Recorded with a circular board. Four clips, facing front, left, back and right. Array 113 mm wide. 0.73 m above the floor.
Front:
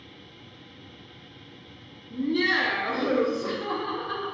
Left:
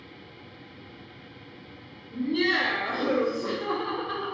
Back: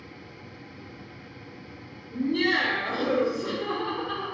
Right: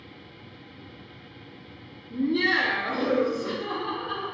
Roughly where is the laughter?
Ahead right.